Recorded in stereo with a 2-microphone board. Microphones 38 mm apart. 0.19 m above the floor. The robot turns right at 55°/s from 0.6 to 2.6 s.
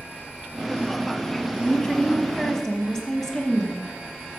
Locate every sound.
1.6 s a woman speaking: 20° left (ahead or behind), 1.1 m; by 4.4 s 15° left (ahead or behind), 1.1 m